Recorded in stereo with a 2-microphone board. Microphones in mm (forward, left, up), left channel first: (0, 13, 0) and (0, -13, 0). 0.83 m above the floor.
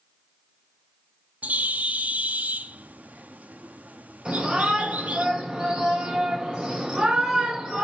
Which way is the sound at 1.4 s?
75° right (ahead or behind).